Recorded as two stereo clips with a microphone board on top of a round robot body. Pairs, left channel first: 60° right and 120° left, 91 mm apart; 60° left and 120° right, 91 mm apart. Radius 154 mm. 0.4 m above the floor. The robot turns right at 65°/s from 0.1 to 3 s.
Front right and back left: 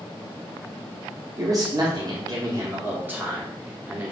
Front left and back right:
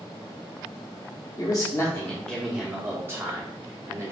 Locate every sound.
1.4 s a man speaking: 80° left, 1.2 m; by 4.1 s 175° right, 1.2 m